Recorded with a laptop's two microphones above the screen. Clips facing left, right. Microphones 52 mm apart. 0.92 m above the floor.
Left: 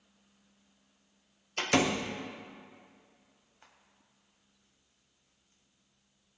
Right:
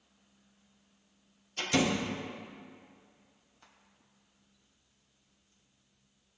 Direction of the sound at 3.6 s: 35° left (ahead or behind).